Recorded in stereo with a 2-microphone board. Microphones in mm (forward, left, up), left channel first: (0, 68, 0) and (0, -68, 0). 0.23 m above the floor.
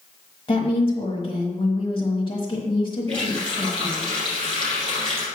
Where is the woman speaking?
35° left (ahead or behind), 1.6 m.